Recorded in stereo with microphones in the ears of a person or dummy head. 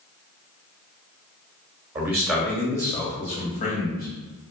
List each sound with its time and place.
1.9 s a man speaking: 15° right (ahead or behind), 1.2 m; by 4.1 s 45° left (ahead or behind), 1.9 m